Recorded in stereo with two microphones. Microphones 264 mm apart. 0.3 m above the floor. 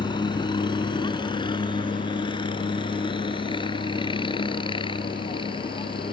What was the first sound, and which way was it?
A helicopter, 15° left (ahead or behind).